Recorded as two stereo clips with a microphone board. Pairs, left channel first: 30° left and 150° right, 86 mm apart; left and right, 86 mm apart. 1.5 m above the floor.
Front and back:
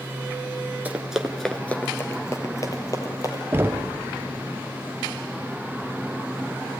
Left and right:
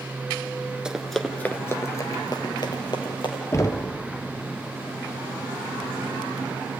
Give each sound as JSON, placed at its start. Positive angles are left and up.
{"t": 0.8, "sound": "running footsteps", "azimuth_deg": -150, "distance_m": 1.5}
{"t": 3.5, "sound": "knocking", "azimuth_deg": 145, "distance_m": 0.7}